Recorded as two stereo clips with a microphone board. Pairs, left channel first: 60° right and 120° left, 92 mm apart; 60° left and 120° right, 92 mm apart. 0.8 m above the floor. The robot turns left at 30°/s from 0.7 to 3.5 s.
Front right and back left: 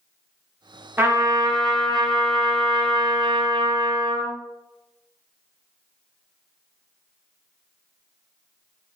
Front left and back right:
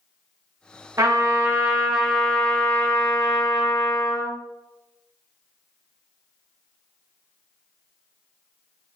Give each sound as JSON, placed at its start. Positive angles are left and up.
{"t": 1.0, "sound": "a trumpet", "azimuth_deg": -175, "distance_m": 0.6}